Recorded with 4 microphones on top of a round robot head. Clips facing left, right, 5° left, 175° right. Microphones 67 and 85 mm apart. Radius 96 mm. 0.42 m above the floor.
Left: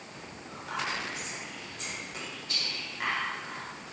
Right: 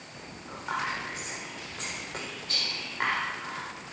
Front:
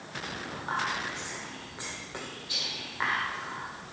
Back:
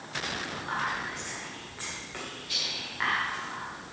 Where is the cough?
I don't hear a cough.